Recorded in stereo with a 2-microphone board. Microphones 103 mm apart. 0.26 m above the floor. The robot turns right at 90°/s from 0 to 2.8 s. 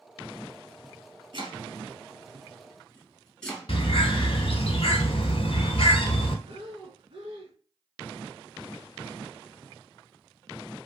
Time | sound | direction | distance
1.3 | chopping | 50° right (ahead or behind) | 1.1 m
3.7 | a bird | 70° left (ahead or behind) | 0.7 m
6.5 | breathing | 70° right (ahead or behind) | 0.6 m